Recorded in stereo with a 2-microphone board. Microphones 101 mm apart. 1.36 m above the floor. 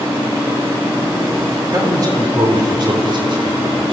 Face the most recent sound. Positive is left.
turn(degrees=-55)  # may be behind; listen again after turning